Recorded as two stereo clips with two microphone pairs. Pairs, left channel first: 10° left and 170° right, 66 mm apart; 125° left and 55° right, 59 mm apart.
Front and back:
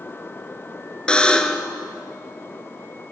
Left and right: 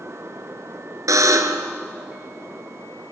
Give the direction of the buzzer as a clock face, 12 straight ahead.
2 o'clock.